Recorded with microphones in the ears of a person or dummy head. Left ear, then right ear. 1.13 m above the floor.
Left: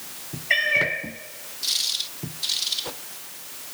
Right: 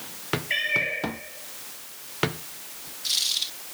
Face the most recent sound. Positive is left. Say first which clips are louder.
# left 5 dB
turn(degrees=45)  # may be behind; listen again after turning